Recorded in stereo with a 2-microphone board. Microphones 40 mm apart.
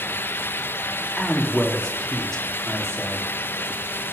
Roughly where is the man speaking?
Centre.